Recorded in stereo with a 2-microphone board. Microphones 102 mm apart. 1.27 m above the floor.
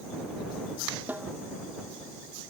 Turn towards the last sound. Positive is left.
turn(degrees=-15)  # may be behind; listen again after turning